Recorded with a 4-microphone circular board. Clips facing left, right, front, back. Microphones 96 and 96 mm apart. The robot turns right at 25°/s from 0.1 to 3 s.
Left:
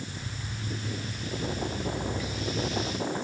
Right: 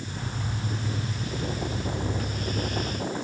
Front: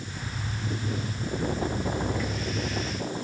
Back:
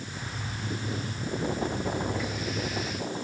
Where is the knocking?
No knocking in this recording.